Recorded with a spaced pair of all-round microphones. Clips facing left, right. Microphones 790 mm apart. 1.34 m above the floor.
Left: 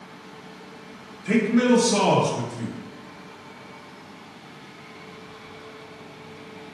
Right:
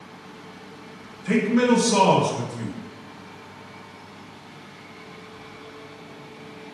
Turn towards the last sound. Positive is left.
turn(degrees=-10)  # may be behind; listen again after turning